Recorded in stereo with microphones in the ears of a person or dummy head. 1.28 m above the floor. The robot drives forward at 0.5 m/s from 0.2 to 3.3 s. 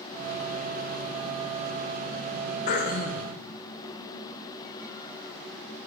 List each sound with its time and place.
2.7 s throat clearing: 50° left (ahead or behind), 1.2 m; by 3.4 s 40° left (ahead or behind), 1.5 m